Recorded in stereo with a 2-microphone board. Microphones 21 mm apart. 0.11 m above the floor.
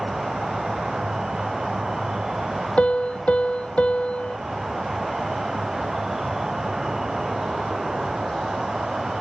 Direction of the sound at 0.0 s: 30° right (ahead or behind).